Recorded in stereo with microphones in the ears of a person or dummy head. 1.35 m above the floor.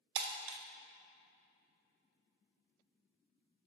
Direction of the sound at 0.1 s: 65° right (ahead or behind).